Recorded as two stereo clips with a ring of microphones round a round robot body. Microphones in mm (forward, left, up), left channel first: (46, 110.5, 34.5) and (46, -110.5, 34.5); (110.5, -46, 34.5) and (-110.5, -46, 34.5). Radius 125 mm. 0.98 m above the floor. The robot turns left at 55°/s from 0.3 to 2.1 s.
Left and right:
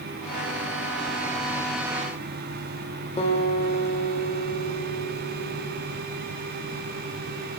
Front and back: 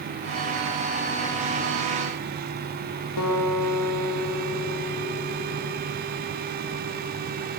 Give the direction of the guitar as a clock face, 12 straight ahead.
11 o'clock.